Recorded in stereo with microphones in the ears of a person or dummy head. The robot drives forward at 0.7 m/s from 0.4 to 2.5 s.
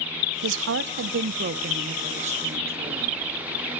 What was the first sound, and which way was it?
A woman speaking, 75° right (ahead or behind).